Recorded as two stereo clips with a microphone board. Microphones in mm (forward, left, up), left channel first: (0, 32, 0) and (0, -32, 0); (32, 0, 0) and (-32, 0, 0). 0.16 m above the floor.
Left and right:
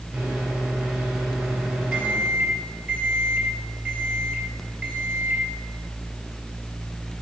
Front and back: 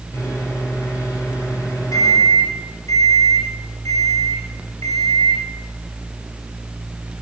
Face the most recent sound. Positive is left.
turn(degrees=-10)